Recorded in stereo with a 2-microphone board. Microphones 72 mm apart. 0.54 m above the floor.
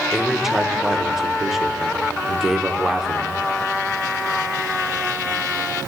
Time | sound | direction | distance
0.1 | a man speaking | 5° right (ahead or behind) | 1.0 m